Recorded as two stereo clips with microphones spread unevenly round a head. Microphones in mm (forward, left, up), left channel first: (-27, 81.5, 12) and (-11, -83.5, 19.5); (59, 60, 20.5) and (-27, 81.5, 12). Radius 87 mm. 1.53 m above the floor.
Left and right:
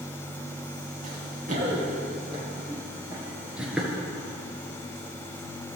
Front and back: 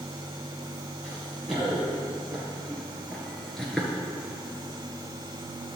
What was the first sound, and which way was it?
Running footsteps, 100° right.